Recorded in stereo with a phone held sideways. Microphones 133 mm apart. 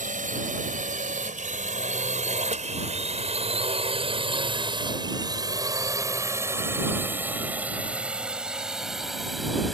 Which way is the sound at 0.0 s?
80° right.